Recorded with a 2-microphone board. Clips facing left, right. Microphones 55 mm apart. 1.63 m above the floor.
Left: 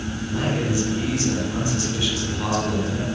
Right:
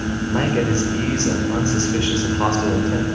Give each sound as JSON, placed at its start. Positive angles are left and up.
{"t": 0.3, "sound": "a man speaking", "side_deg": -45, "distance_m": 7.0}